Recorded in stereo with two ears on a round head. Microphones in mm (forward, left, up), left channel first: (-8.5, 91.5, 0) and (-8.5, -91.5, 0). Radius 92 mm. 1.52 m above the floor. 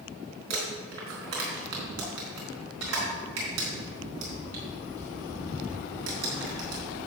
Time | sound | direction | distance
0.5 | crumpling | 70° right (ahead or behind) | 3.5 m